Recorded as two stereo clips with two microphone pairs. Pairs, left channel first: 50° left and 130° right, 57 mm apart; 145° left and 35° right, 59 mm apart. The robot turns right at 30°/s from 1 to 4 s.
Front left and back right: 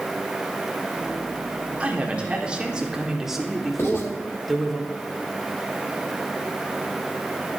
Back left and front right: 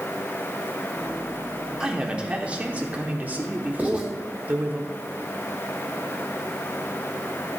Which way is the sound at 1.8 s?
95° right.